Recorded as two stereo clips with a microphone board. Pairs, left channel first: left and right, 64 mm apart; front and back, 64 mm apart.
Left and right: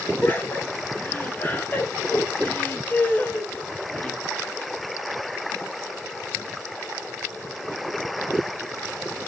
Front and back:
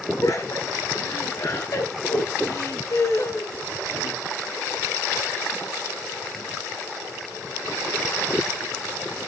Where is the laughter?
30° left, 4.5 m; by 4.2 s 25° left, 1.8 m.